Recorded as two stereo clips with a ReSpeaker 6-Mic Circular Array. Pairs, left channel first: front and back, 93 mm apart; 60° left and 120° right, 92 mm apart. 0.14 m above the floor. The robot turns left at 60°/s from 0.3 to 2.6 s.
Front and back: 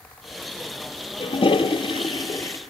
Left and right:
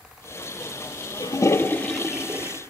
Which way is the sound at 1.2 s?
20° left.